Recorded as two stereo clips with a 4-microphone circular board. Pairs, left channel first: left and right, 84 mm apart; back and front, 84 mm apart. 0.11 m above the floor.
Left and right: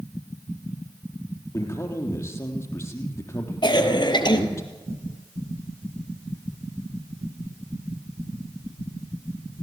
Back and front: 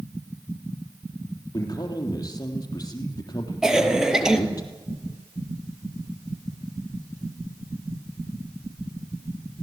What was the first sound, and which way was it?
A man speaking, 145° left.